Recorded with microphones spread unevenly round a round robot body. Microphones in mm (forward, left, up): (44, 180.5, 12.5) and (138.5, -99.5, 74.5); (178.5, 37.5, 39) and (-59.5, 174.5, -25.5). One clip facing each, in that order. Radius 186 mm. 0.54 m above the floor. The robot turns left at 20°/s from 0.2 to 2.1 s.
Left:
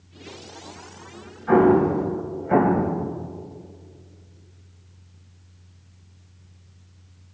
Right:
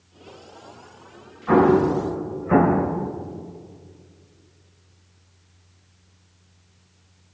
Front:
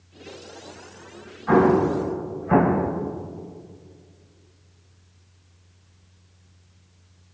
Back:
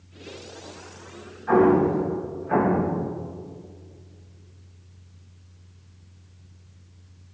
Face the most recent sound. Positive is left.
turn(degrees=5)